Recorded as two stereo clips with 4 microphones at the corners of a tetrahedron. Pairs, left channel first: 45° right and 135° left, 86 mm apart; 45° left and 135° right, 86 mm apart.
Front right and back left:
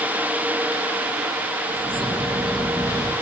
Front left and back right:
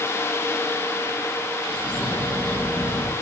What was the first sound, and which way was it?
A bird, 120° left.